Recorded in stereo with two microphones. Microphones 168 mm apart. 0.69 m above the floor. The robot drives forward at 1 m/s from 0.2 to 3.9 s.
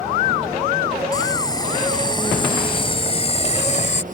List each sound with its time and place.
1.1 s boiling: 20° left (ahead or behind); by 4.0 s 50° left (ahead or behind)